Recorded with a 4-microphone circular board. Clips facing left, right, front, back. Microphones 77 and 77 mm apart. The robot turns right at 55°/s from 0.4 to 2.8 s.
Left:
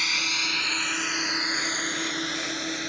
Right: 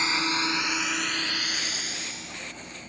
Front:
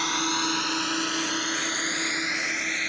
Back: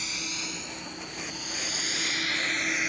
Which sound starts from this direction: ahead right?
A drone, at 0.0 s.